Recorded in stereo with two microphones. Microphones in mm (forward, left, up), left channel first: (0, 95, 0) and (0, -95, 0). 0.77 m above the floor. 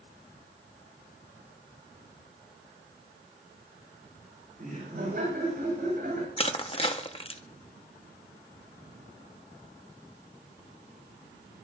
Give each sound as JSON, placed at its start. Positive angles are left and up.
{"t": 4.6, "sound": "laughter", "side_deg": -50, "distance_m": 7.5}
{"t": 6.4, "sound": "crushing", "side_deg": 30, "distance_m": 0.9}